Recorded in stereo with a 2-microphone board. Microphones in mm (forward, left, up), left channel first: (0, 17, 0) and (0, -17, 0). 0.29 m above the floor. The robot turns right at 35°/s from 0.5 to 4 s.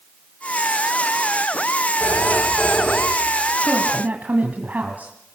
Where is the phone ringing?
130° left, 9 m; by 3.5 s straight behind, 9 m.